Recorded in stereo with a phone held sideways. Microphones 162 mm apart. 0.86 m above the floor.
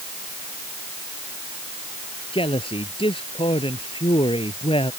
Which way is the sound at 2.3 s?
30° left (ahead or behind).